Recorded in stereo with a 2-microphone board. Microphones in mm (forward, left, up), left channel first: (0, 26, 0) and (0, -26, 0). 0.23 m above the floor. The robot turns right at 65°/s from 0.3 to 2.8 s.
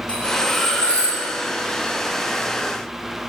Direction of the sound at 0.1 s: 160° left.